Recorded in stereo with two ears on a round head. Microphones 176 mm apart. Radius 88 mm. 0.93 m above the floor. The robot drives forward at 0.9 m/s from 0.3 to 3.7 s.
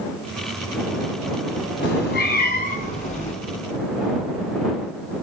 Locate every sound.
1.8 s a cat meowing: 60° left (ahead or behind), 2.0 m; by 3.3 s 35° left (ahead or behind), 3 m